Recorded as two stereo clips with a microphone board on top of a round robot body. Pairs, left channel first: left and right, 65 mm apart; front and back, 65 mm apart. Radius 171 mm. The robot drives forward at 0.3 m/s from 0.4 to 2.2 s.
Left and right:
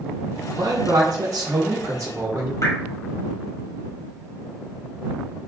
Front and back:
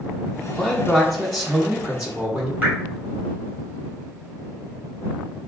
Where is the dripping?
120° left, 2.0 m.